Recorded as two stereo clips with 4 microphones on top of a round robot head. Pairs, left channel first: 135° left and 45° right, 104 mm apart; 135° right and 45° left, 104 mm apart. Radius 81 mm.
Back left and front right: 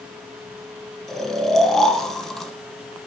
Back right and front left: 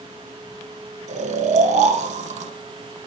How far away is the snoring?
About 3 m.